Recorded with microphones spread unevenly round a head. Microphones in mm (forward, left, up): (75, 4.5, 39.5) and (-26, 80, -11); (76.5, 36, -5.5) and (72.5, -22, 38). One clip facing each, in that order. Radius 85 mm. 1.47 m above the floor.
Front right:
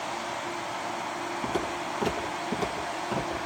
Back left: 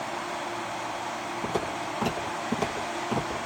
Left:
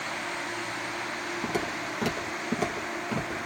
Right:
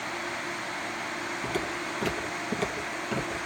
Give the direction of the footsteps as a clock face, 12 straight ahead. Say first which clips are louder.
Back left 1 dB, left 1 dB; 2 o'clock.